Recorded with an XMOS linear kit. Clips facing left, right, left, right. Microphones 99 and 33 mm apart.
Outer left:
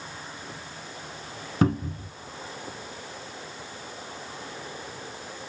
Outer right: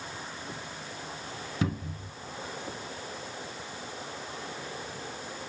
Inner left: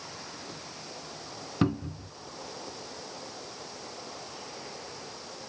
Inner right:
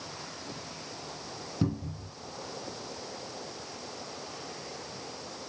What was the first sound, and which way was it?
A cupboard door, 50° left (ahead or behind).